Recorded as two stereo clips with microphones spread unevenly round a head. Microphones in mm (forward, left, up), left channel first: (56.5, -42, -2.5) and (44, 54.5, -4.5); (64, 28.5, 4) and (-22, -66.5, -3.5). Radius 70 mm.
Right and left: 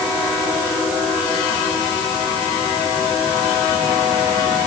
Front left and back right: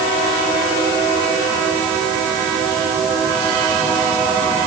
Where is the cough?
No cough in this recording.